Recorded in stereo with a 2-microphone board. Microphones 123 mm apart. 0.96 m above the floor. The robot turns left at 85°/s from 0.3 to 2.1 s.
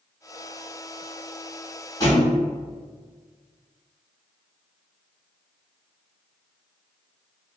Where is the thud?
25° left (ahead or behind), 1.2 m; by 2.4 s 20° left (ahead or behind), 1.2 m.